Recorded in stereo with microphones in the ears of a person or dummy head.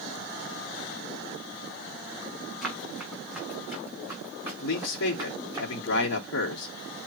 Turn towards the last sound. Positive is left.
turn(degrees=70)  # may be behind; listen again after turning